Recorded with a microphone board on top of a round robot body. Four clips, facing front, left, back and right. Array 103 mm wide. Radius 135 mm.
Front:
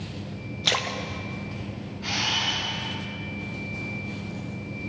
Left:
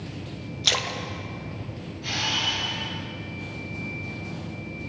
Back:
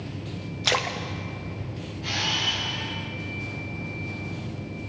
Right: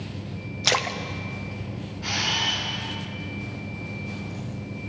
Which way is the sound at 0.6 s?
110° right.